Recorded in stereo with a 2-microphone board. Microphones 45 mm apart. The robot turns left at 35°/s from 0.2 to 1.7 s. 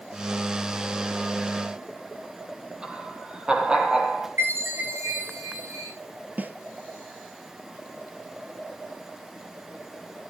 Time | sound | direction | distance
2.8 | laughter | 20° right (ahead or behind) | 4.5 m
4.4 | a chime | 70° right (ahead or behind) | 6.5 m
6.4 | a snare drum | 40° right (ahead or behind) | 1.9 m